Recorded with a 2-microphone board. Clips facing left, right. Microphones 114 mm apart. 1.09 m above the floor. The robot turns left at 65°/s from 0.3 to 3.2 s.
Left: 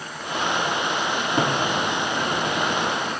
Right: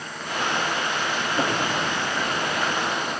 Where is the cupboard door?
45° left (ahead or behind), 5 m; by 1.5 s 70° left (ahead or behind), 5 m.